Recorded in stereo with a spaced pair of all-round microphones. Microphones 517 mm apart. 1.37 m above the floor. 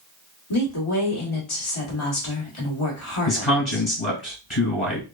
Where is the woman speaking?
70° left (ahead or behind), 1.2 m.